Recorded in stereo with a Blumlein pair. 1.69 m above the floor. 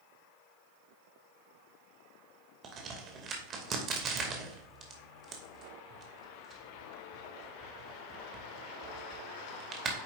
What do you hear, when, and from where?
2.6 s a crack: 25° right, 2 m